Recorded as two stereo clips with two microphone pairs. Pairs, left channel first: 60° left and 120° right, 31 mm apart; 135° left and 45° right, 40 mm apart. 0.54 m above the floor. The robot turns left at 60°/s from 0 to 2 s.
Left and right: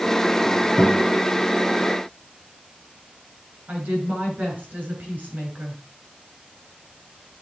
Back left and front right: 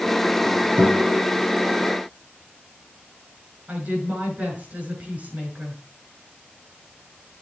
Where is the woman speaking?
100° right, 5.5 m.